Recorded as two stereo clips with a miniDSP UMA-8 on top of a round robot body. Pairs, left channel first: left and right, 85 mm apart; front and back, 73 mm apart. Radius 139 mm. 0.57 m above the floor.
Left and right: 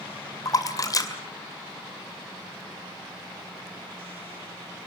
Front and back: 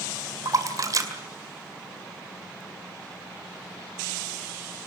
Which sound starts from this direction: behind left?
A splash, at 0.5 s.